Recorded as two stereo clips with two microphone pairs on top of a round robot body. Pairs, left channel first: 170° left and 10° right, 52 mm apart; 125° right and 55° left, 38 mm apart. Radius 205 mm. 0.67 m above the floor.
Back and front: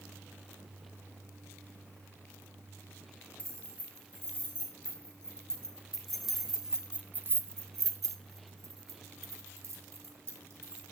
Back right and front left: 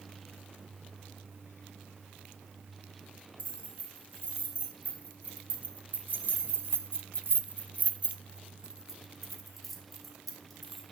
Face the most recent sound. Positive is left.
turn(degrees=-40)